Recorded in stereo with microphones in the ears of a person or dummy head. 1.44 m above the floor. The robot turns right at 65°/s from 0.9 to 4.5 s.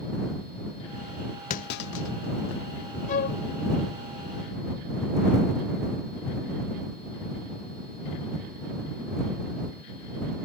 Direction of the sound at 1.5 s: 40° left (ahead or behind).